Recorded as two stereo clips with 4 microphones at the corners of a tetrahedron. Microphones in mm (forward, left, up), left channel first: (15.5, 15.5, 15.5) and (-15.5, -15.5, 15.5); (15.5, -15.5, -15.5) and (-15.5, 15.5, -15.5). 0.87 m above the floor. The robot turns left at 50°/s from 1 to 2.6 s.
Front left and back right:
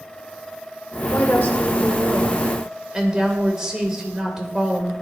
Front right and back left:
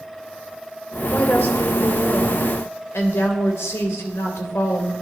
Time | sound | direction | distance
1.1 | a woman speaking | 15° left | 3 m